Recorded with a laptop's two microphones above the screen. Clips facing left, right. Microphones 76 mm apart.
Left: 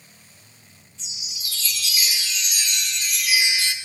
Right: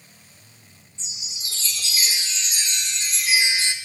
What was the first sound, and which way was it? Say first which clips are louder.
A chime: left 1 dB; 30° right (ahead or behind).